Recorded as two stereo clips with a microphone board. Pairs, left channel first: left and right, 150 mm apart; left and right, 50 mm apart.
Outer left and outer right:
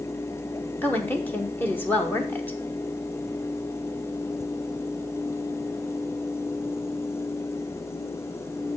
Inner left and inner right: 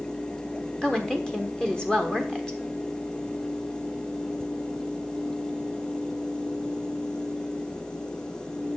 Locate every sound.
0.8 s a woman speaking: 10° left (ahead or behind), 1.0 m